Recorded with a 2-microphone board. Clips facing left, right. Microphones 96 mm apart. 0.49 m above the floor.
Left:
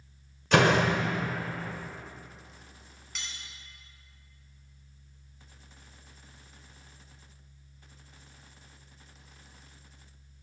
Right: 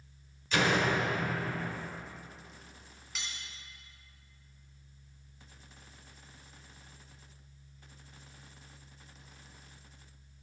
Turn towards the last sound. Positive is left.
turn(degrees=0)  # may be behind; listen again after turning